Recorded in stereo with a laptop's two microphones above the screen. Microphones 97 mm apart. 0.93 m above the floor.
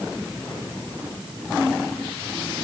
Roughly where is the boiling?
I don't hear boiling.